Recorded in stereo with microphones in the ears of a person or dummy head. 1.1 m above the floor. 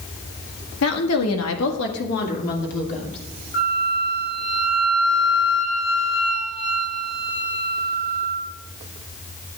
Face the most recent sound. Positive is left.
turn(degrees=40)  # may be behind; listen again after turning